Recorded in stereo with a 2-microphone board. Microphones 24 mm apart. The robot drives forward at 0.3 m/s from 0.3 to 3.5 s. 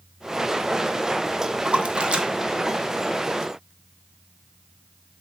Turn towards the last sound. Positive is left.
turn(degrees=-30)  # may be behind; listen again after turning